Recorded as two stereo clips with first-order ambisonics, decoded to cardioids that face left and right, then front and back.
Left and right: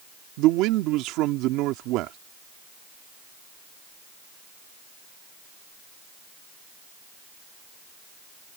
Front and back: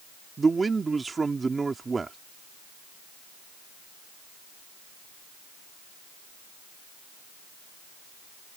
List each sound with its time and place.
0.4 s a man speaking: 105° right